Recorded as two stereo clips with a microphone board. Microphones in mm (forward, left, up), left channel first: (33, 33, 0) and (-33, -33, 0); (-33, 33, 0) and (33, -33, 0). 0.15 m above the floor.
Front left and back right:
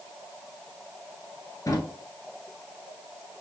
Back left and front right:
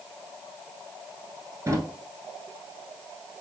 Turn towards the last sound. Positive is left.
turn(degrees=5)